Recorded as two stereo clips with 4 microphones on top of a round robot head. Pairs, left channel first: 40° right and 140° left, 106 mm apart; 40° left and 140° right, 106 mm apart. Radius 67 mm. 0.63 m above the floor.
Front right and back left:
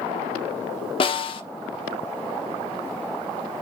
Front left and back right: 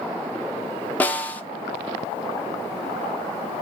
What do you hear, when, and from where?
1.0 s a snare drum: 30° right, 1.6 m